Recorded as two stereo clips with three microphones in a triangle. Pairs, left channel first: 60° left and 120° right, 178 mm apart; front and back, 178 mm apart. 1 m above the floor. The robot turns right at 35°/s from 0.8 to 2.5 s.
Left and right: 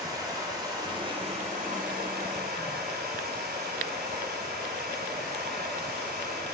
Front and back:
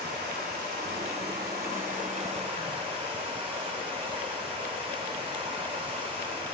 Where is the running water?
175° left, 1.6 m; by 6.5 s 125° right, 1.6 m.